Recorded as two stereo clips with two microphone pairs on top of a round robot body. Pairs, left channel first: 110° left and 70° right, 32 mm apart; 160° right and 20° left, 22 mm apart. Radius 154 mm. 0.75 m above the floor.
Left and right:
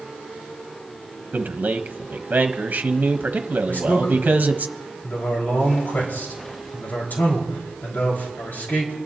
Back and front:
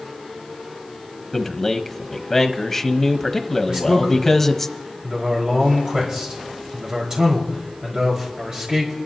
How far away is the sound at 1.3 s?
About 1.1 m.